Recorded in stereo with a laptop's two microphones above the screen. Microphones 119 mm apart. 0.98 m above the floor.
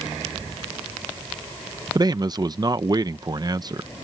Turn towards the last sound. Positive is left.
turn(degrees=-35)  # may be behind; listen again after turning